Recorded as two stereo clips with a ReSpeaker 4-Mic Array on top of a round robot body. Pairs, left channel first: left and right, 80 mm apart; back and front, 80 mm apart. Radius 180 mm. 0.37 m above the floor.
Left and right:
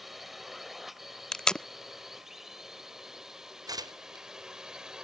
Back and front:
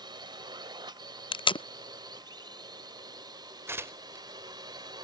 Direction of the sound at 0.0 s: Straight ahead.